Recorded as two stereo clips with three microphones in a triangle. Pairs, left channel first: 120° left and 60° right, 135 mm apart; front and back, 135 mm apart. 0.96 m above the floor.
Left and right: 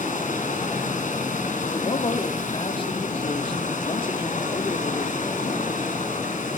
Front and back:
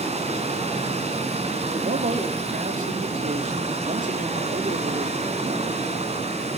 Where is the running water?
140° left, 5.5 m.